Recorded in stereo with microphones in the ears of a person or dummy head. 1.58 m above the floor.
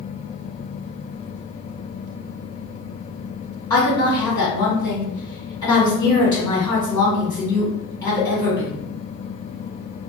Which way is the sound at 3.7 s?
20° left (ahead or behind).